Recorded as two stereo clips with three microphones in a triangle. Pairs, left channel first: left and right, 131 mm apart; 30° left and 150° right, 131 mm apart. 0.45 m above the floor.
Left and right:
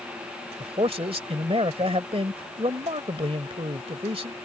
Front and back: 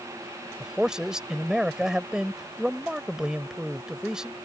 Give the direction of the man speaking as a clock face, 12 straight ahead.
2 o'clock.